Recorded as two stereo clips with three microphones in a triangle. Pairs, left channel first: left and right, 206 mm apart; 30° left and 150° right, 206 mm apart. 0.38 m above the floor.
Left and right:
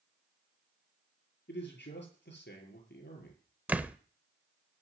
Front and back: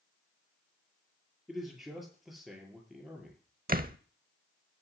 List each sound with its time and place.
1.5 s a man speaking: 120° left, 6.5 m
3.7 s a door slam: 170° right, 0.7 m